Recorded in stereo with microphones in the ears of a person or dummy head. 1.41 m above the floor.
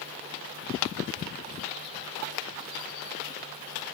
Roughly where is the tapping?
Left.